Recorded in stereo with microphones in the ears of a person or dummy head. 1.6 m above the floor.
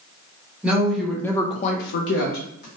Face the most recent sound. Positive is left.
turn(degrees=55)  # may be behind; listen again after turning